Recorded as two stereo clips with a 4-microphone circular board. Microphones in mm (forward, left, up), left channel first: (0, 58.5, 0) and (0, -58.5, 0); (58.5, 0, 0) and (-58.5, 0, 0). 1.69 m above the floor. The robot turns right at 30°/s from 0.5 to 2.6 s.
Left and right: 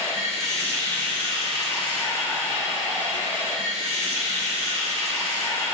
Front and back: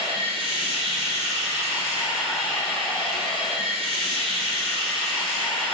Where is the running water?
150° right, 3 m; by 5.7 s 85° right, 3 m.